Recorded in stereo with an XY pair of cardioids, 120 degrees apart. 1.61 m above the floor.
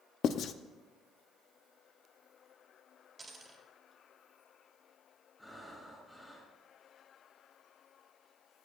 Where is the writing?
55° left, 0.6 m.